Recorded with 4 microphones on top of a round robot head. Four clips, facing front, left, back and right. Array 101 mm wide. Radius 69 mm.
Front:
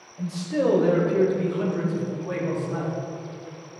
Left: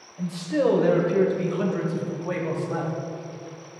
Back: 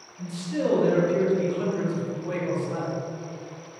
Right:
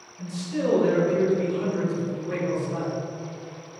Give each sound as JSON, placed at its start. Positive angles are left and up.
{"t": 0.2, "sound": "a man speaking", "azimuth_deg": 60, "distance_m": 2.0}